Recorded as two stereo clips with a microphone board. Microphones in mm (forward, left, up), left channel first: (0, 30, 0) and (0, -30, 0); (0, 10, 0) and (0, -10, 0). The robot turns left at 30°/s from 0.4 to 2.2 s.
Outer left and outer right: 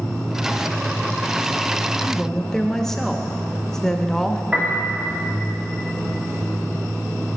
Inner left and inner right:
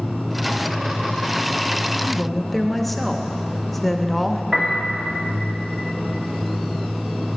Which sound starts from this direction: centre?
A woman speaking, at 2.0 s.